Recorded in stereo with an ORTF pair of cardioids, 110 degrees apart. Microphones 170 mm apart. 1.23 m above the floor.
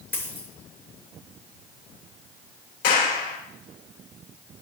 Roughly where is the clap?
Ahead left.